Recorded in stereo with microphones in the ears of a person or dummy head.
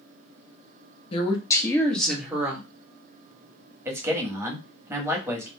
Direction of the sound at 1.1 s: 30° left (ahead or behind).